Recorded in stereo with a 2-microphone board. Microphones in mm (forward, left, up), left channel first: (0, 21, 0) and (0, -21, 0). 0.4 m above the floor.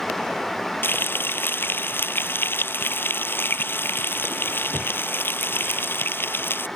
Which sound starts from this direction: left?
Frying, at 0.8 s.